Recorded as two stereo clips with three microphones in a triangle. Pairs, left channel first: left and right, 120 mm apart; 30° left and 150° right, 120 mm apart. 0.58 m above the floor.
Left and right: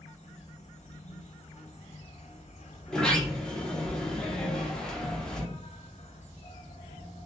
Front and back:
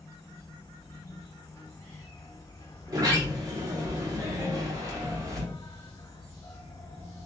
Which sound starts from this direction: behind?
A sliding door, at 2.9 s.